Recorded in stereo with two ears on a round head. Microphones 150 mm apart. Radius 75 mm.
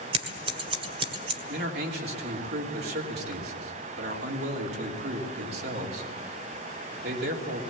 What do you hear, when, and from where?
0.1 s scissors: 35° right (ahead or behind), 1.7 m
1.5 s a man speaking: 65° right (ahead or behind), 3 m